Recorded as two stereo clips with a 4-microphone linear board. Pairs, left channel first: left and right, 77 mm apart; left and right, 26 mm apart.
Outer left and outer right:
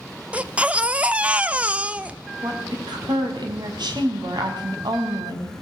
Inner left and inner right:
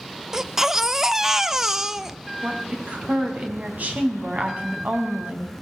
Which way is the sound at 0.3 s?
15° right (ahead or behind).